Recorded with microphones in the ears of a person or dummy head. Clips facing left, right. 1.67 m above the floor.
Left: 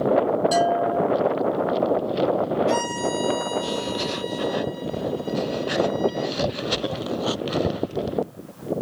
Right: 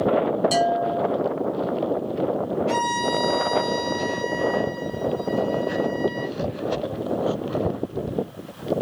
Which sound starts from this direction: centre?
A violin, at 2.7 s.